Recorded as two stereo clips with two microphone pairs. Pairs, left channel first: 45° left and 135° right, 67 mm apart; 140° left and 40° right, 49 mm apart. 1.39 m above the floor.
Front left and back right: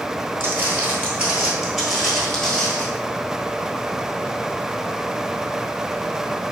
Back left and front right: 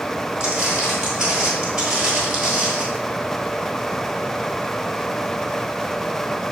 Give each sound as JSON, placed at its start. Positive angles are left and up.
{"t": 0.4, "sound": "footsteps", "azimuth_deg": -105, "distance_m": 1.7}